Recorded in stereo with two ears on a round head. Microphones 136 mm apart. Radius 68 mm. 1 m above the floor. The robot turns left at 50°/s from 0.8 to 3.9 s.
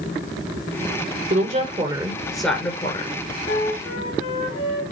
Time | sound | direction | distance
1.3 | a woman speaking | 125° right | 3.5 m
3.5 | a flute | 75° left (ahead or behind) | 4 m